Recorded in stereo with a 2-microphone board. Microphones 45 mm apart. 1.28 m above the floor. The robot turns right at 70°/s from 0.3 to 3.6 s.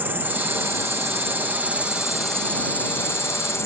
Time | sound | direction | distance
0.0 | an insect | 130° right | ?